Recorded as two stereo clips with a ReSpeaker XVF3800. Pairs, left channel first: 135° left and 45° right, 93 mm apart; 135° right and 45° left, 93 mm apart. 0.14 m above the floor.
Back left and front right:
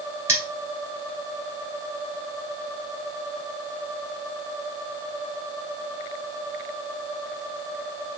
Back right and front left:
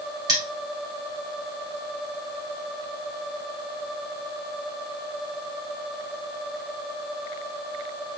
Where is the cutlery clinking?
10° left, 1.4 m.